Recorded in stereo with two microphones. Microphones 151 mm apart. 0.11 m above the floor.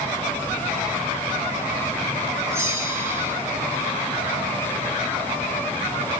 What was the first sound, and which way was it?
A bell, 20° right (ahead or behind).